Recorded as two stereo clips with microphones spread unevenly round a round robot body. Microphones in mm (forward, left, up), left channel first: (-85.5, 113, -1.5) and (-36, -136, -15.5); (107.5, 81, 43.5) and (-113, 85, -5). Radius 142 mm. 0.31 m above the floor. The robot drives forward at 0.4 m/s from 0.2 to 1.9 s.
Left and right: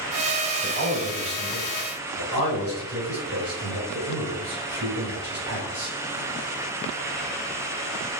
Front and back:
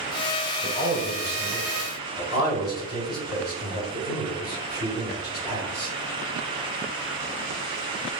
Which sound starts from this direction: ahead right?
A man speaking, at 0.6 s.